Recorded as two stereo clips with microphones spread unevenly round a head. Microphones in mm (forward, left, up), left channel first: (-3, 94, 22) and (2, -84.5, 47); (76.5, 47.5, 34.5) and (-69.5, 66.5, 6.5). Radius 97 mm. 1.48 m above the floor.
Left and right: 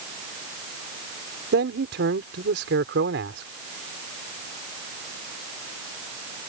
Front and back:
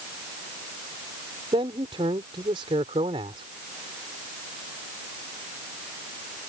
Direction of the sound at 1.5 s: 120° right.